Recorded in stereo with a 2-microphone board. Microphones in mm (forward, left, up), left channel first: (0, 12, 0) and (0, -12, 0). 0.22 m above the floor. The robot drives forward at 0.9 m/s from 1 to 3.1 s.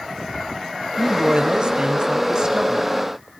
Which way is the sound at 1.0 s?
40° right (ahead or behind).